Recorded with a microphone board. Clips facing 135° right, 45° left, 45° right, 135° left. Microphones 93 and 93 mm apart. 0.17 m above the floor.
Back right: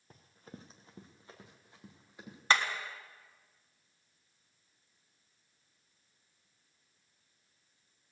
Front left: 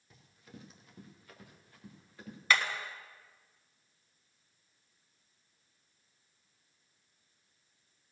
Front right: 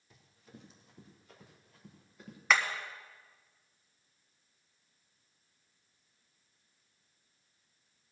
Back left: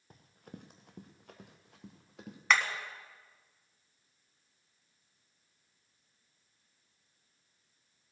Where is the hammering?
135° right, 1.4 m.